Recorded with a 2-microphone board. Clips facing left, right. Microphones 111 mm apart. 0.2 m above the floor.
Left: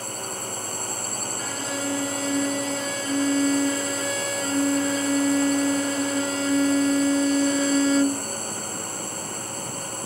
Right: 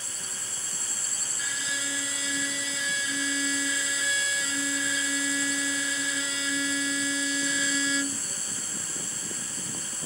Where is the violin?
45° left (ahead or behind).